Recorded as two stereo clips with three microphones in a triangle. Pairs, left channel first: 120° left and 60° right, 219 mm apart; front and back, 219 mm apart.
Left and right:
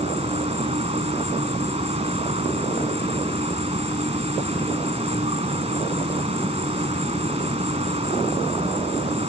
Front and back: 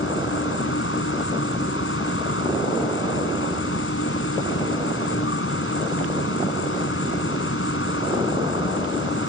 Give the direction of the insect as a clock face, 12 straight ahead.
12 o'clock.